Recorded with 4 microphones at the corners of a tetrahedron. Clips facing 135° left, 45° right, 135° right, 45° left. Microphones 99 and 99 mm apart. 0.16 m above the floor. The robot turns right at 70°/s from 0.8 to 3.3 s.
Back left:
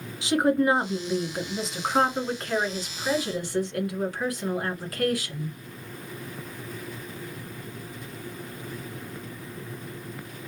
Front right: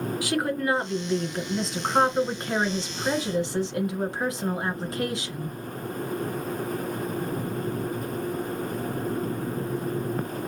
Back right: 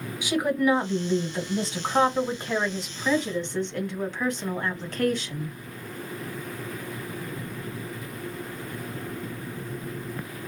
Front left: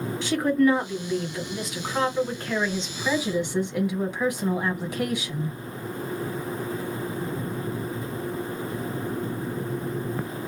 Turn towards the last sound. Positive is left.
turn(degrees=-25)